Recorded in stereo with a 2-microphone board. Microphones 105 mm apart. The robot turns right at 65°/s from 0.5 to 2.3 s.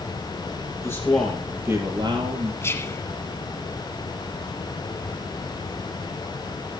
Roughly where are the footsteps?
I don't hear footsteps.